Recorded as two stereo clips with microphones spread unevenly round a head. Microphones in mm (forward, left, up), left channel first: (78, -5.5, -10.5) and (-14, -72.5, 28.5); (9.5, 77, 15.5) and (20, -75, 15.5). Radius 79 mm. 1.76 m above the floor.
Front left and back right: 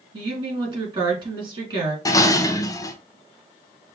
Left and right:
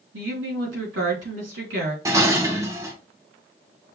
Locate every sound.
0.1 s a woman speaking: 105° right, 4 m
2.0 s dishes clattering: 35° right, 0.9 m